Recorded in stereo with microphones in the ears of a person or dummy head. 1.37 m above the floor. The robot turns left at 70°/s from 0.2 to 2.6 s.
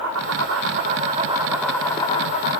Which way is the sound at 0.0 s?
80° right.